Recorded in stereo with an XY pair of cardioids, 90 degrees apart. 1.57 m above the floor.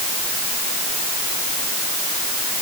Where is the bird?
No bird in this recording.